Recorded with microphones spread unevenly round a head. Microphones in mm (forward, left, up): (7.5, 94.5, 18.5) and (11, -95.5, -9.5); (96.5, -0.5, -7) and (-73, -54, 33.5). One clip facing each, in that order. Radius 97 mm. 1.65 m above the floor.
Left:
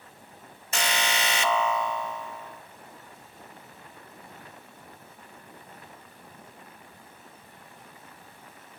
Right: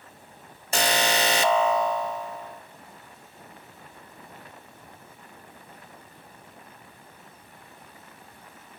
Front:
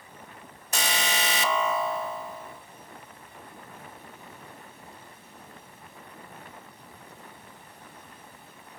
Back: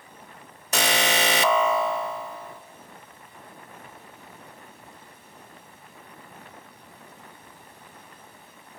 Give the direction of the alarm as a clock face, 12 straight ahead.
5 o'clock.